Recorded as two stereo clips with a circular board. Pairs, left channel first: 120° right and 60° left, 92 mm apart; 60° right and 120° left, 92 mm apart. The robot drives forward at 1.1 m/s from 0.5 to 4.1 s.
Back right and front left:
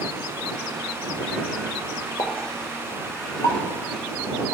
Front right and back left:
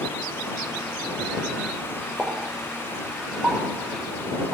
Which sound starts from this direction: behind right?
A pop, at 2.2 s.